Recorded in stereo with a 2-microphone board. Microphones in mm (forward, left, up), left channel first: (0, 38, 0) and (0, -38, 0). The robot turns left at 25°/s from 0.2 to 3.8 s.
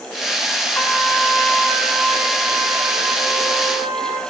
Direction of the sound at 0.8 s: 35° left.